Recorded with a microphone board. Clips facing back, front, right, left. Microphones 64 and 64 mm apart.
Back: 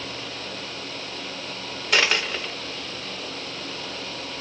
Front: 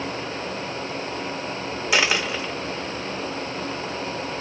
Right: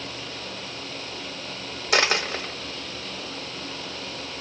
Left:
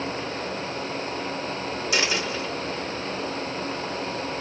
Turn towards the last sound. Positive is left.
turn(degrees=-85)